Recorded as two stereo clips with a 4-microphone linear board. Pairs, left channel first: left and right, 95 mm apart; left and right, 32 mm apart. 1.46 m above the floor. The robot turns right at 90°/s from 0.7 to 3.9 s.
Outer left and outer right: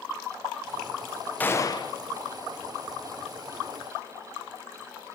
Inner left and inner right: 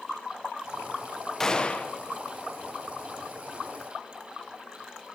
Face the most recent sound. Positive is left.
turn(degrees=-115)